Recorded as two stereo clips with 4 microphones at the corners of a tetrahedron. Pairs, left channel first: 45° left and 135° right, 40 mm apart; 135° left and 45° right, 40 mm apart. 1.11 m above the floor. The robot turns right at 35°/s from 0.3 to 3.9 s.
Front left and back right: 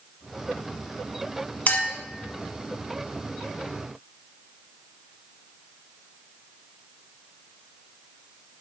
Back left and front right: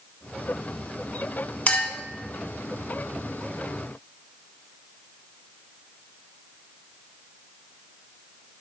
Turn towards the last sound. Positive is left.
turn(degrees=160)